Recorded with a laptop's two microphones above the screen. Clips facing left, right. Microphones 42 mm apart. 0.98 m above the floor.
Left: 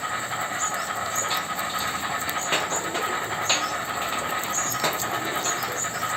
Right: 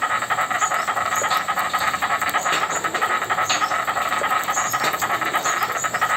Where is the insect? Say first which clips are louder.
Right 7 dB; 70° right (ahead or behind), 0.9 m.